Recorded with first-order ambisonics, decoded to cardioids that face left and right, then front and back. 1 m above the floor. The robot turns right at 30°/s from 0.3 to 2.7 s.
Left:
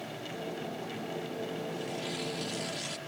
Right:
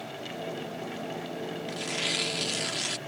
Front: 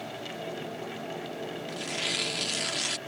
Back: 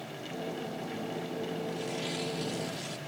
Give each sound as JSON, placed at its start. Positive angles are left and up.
{"t": 1.7, "sound": "tearing paper", "azimuth_deg": -65}